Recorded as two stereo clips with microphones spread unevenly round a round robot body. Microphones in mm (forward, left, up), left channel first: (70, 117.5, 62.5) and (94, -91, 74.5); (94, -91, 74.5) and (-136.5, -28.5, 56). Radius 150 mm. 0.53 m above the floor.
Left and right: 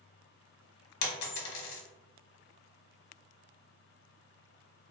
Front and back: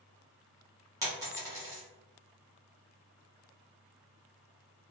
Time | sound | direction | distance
1.0 | a dropped coin | 85° left | 0.7 m